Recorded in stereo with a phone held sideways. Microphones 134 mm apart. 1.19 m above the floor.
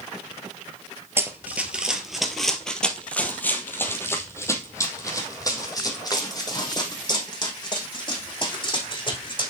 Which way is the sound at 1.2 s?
15° right (ahead or behind).